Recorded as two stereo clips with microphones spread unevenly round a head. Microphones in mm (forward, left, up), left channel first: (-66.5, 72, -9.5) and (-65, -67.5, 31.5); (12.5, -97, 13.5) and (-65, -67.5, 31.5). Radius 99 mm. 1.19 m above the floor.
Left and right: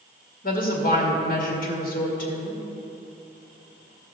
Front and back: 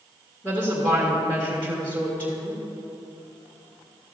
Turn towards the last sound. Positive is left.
turn(degrees=60)